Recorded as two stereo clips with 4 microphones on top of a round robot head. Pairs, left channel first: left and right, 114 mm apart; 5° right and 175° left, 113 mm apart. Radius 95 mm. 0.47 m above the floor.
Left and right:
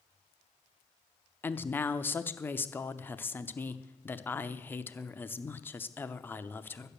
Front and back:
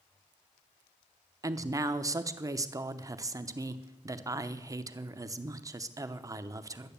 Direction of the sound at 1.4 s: 145° left.